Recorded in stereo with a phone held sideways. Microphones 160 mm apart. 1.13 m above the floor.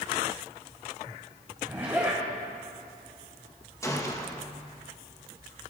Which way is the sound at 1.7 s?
10° right (ahead or behind).